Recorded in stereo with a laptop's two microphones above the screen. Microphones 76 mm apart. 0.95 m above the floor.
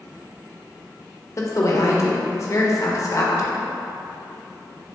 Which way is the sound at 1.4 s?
45° left (ahead or behind).